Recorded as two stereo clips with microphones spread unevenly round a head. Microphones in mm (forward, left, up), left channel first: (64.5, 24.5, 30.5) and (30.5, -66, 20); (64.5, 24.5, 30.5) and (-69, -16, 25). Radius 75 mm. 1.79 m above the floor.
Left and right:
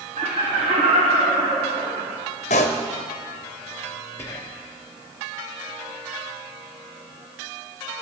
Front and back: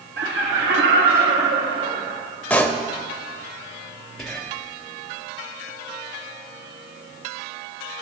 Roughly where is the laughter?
Behind right.